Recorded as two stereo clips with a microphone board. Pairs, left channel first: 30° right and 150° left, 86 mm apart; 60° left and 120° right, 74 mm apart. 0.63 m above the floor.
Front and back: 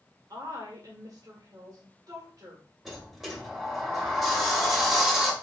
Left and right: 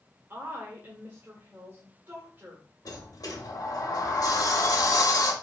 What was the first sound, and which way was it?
A woman speaking, 175° right.